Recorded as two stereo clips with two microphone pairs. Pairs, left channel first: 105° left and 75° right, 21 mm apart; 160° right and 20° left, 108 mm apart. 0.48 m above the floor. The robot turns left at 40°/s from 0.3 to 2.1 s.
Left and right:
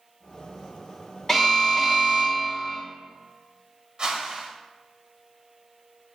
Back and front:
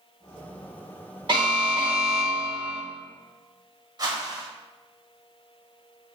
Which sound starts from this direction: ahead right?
A whoosh, at 4.0 s.